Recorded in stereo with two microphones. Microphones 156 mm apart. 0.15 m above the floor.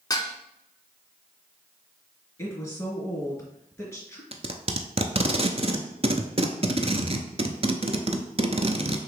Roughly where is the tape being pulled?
Right.